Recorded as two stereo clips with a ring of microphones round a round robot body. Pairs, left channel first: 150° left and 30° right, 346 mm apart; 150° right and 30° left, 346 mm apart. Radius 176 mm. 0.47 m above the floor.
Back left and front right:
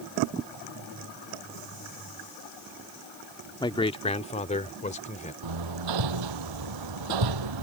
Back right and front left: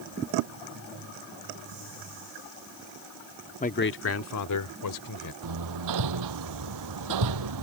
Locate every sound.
3.6 s a man speaking: 160° right; by 5.3 s 140° right
5.4 s hammering: 5° right